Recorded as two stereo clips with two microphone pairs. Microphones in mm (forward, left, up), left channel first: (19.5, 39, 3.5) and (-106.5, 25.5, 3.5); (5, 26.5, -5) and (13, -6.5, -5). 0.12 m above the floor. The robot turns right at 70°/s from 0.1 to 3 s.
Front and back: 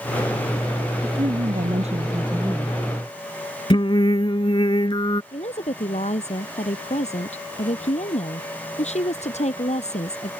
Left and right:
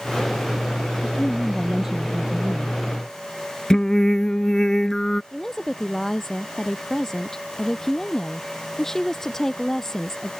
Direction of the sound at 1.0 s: 150° left.